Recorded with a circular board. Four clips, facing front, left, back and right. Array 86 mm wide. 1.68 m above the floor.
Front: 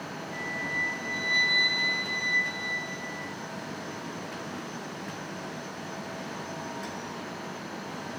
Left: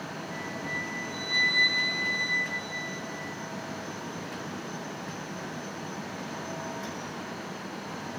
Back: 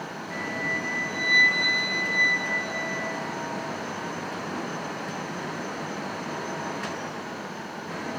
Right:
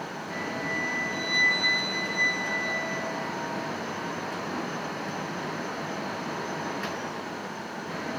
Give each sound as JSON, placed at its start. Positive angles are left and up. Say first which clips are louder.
{"t": 0.3, "sound": "a flute", "louder": "right 5 dB, back 4 dB", "azimuth_deg": -165, "distance_m": 4.0}